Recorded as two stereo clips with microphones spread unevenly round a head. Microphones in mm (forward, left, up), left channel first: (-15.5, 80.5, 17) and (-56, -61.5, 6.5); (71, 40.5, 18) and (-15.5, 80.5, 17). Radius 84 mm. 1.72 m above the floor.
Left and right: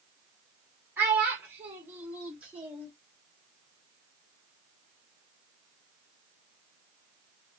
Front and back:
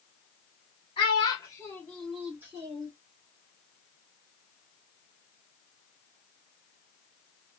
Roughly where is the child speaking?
Ahead right.